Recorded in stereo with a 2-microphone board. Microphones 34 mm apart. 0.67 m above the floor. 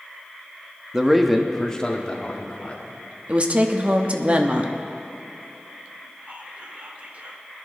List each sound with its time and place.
0.9 s a man speaking: 15° right (ahead or behind), 1.0 m; by 2.8 s 35° left (ahead or behind), 2.5 m
3.3 s a woman speaking: 35° right (ahead or behind), 1.0 m
6.3 s whispering: 45° right (ahead or behind), 1.9 m